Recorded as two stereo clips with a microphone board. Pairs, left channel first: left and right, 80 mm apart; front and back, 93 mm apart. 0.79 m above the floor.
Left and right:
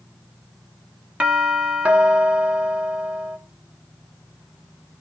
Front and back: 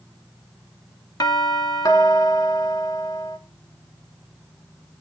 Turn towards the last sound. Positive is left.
turn(degrees=-20)